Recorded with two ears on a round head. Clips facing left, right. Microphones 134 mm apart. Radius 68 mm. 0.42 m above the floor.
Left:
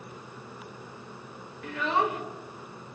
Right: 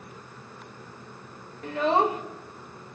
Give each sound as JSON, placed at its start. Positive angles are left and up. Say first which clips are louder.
{"t": 1.6, "sound": "a child speaking", "louder": "right 5 dB", "side_deg": -30, "distance_m": 0.8}